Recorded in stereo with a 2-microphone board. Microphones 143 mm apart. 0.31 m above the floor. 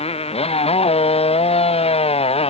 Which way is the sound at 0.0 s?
45° left (ahead or behind).